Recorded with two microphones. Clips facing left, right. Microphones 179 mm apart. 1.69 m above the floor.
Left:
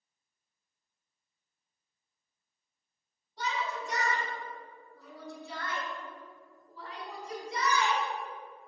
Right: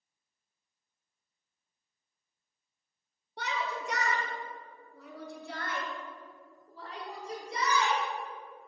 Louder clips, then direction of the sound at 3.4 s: Even; 65° right (ahead or behind).